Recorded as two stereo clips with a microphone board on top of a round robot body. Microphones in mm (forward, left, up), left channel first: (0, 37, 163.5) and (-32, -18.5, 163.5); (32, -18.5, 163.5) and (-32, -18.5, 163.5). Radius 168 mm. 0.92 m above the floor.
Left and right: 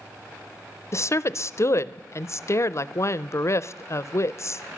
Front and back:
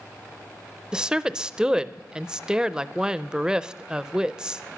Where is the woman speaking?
100° left, 0.5 m.